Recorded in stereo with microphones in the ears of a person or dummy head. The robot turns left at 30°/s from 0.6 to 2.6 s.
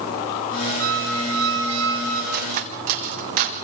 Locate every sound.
0.8 s a squeak: 90° right, 6 m; by 2.2 s 130° right, 6 m
2.3 s cutlery clinking: 40° right (ahead or behind), 1.1 m; by 3.6 s 35° right (ahead or behind), 1.1 m